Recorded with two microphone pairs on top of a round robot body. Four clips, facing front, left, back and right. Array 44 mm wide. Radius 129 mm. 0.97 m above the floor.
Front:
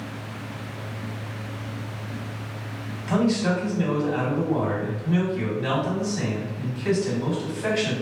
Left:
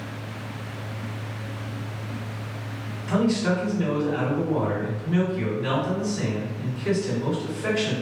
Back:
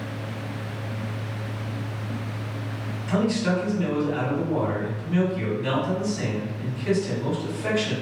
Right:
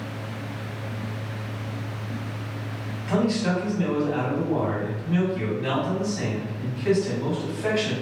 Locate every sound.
3.1 s a man speaking: 30° right, 1.8 m